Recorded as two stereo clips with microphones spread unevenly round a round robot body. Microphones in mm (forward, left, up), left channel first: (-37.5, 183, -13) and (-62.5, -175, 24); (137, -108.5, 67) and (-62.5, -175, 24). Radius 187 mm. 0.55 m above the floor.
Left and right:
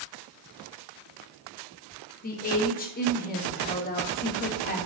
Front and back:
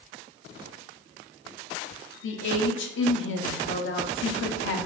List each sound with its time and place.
2.2 s a woman speaking: 35° left, 1.4 m